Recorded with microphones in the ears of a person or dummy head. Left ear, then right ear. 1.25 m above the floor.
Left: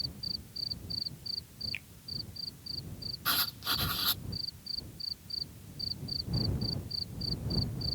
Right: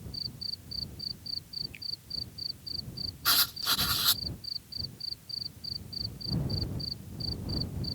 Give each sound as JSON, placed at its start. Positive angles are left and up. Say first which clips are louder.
{"t": 1.7, "sound": "a finger snap", "louder": "left 1 dB", "side_deg": 25}
{"t": 3.2, "sound": "writing", "louder": "right 5 dB", "side_deg": -5}